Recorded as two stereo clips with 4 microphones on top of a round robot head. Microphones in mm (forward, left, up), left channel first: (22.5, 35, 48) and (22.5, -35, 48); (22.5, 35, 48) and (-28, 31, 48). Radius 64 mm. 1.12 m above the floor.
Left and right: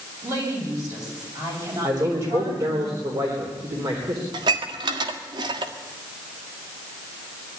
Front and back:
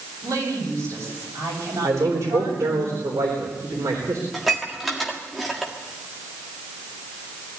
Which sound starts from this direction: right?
Dishes clattering, at 4.3 s.